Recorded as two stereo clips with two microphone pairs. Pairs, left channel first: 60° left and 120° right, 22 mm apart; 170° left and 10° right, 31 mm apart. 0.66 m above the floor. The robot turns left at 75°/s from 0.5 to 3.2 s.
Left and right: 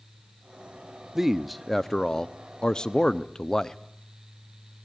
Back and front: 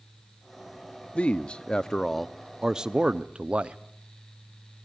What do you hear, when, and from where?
1.1 s a man speaking: 170° left, 0.8 m; by 3.8 s 15° left, 0.8 m